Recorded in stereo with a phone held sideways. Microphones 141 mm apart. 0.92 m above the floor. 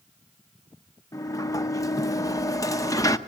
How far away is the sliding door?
About 0.8 m.